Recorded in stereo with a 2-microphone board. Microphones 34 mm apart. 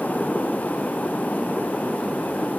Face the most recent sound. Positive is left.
No sound to turn to.